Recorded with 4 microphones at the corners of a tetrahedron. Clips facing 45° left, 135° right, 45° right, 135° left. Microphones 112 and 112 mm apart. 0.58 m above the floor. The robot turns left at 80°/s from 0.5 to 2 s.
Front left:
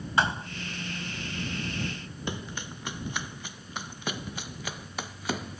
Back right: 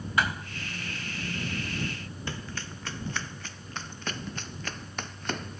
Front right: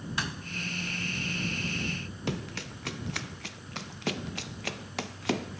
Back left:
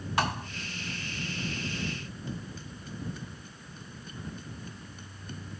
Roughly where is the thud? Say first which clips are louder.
Front left 2 dB, back left 9 dB; left.